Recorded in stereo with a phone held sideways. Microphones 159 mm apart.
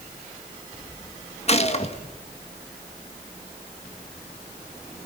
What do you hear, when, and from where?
1.5 s a gunshot: 40° left (ahead or behind), 1.6 m